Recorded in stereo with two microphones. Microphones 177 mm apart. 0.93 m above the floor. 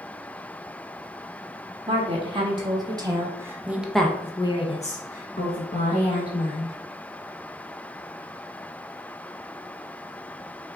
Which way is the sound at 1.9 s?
30° right (ahead or behind).